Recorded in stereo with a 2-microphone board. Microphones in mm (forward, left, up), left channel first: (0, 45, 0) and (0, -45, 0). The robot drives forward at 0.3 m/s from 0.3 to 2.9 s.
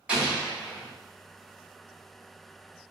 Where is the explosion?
10° right (ahead or behind), 1.4 m; by 0.9 s 15° right (ahead or behind), 1.3 m.